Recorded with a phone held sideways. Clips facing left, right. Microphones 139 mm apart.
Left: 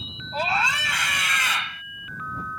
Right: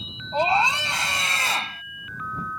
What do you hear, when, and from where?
0.3 s a scream: 25° right (ahead or behind); by 1.8 s 40° right (ahead or behind)